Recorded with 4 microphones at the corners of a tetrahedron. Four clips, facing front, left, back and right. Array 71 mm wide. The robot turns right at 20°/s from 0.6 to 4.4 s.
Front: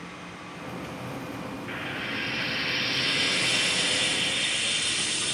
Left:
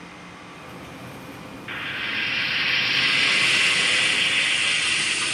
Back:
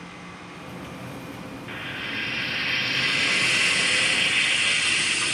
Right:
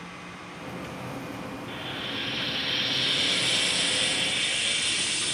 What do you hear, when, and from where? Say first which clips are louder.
1.7 s frying: left 10 dB, back 1 dB; 80° left, 0.6 m; by 5.3 s 135° left, 0.6 m